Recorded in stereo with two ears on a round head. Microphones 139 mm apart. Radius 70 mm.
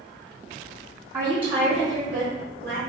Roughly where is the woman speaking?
Right.